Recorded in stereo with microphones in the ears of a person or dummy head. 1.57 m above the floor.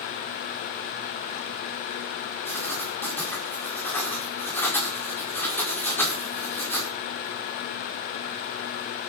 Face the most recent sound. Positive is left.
turn(degrees=10)  # may be behind; listen again after turning